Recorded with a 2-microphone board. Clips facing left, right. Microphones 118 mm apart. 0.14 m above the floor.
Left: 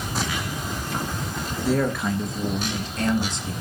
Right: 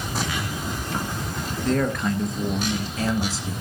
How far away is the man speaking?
About 2 m.